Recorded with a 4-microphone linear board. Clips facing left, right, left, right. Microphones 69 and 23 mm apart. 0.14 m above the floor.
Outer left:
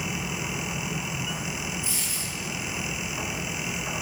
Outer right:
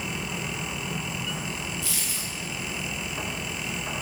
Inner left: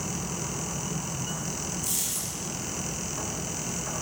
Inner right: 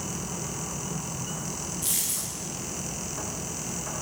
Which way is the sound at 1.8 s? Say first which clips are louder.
Even, inner right 1 dB; 90° right.